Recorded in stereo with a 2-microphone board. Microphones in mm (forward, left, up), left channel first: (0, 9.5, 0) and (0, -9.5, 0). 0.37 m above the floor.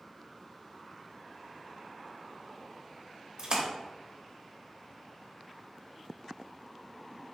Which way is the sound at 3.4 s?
40° right (ahead or behind).